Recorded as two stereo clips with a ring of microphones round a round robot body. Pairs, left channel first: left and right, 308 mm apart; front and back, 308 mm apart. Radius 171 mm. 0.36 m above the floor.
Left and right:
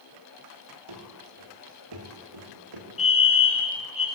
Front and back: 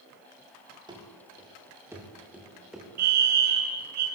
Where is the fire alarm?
160° left, 3.5 m.